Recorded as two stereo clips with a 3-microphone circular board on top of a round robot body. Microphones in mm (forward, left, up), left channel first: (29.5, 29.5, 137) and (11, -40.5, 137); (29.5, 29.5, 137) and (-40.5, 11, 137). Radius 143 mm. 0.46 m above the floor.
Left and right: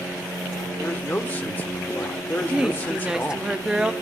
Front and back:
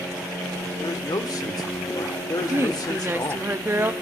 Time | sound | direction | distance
0.8 | a man speaking | 15° left | 1.8 m
2.5 | a woman speaking | 170° right | 1.2 m